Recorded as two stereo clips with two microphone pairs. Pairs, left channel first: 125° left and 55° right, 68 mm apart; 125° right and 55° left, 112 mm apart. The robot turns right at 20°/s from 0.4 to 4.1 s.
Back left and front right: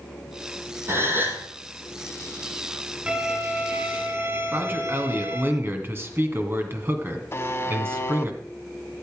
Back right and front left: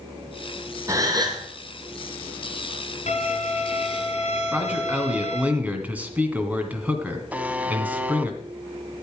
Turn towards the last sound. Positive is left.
turn(degrees=120)